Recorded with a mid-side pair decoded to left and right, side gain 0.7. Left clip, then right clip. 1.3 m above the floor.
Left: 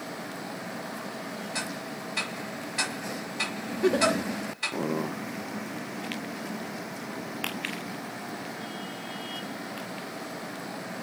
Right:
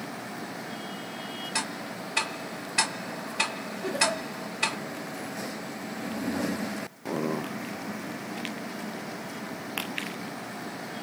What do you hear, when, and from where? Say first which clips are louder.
1.6 s ticking: right 3 dB; 35° right, 1.2 m
3.8 s a giggle: left 3 dB; 50° left, 0.8 m